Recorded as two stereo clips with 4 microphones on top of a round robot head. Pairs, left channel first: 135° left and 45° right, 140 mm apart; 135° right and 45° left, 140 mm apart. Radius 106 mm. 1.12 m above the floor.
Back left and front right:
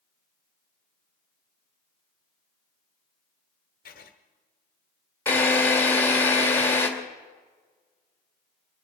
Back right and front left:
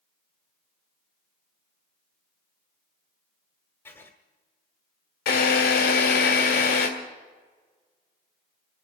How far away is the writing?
About 1.1 m.